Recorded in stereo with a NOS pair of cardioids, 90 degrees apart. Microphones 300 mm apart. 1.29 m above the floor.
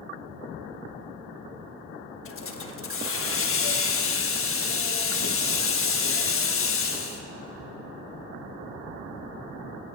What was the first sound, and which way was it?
A hiss, 40° left.